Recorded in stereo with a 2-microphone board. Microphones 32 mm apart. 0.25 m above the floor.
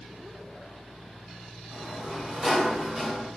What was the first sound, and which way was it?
A sliding door, 10° right (ahead or behind).